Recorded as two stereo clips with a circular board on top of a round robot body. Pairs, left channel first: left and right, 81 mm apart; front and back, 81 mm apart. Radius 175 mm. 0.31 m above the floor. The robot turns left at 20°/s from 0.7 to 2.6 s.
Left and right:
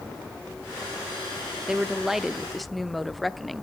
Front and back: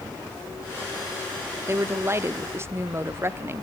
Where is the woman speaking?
165° right, 1.0 m; by 3.6 s straight behind, 1.0 m.